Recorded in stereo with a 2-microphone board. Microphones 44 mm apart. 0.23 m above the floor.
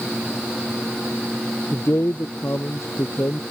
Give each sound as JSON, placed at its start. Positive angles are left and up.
{"t": 1.7, "sound": "a man speaking", "side_deg": 70}